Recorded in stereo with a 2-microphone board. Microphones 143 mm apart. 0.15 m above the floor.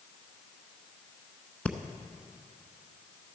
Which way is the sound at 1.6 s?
10° left (ahead or behind).